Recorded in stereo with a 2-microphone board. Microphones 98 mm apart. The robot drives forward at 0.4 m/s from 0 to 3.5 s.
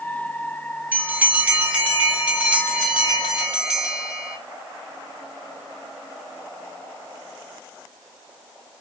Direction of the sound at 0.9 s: 20° right (ahead or behind).